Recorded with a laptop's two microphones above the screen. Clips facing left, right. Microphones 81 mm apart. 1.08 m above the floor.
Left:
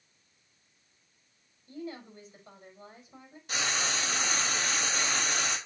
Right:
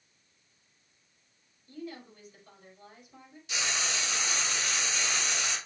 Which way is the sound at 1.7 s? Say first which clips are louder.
Left 2 dB; 30° left (ahead or behind).